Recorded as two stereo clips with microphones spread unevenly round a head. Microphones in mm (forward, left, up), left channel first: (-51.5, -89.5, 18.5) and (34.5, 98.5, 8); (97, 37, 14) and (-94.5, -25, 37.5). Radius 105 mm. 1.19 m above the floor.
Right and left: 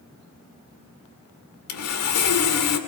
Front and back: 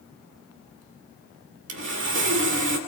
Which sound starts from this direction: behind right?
Sawing, at 1.7 s.